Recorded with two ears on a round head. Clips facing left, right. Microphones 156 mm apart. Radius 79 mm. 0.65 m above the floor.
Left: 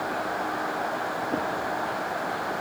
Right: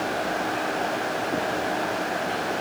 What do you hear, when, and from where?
Only background noise.